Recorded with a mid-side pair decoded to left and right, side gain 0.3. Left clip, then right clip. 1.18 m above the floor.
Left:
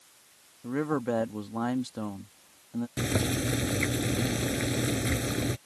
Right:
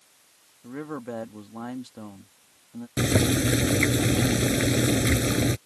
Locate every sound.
0.6 s a man speaking: 55° left
3.0 s boiling: 65° right